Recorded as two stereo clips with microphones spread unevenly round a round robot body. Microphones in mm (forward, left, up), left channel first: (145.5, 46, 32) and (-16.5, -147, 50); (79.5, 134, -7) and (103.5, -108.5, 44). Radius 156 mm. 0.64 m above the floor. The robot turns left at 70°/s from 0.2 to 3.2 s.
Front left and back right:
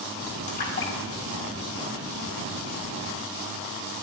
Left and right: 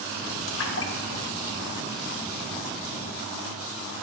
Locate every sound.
0.5 s a splash: 110° left, 1.9 m; by 2.4 s 25° right, 1.9 m